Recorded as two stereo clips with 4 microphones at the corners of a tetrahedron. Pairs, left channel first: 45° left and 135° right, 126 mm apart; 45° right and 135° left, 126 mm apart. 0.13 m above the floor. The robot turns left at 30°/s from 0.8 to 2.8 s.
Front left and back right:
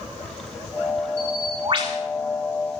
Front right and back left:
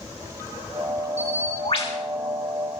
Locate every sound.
1.2 s a bird: 65° right, 5 m; by 2.0 s 90° right, 5 m